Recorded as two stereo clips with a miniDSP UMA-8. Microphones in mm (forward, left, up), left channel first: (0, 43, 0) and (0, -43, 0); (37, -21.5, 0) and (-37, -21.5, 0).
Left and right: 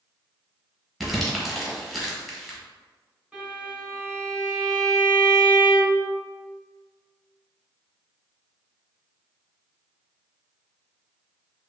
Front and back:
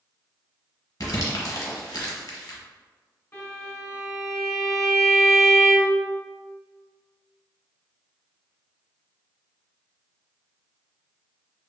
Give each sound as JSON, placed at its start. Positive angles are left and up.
{"t": 1.0, "sound": "crumpling", "azimuth_deg": -5, "distance_m": 0.9}
{"t": 3.3, "sound": "a violin", "azimuth_deg": -30, "distance_m": 1.6}